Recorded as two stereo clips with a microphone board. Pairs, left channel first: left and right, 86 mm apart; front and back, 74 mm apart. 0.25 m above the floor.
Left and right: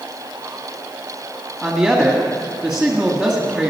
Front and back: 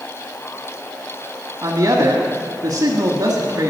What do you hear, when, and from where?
1.6 s a woman speaking: 165° right, 1.5 m